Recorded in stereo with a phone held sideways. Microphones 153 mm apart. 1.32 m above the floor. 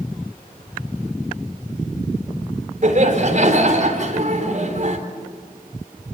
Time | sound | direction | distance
2.8 | laughter | 55° right (ahead or behind) | 4 m